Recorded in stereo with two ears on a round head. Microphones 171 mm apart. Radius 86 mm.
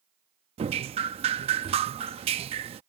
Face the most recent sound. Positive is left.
turn(degrees=-30)  # may be behind; listen again after turning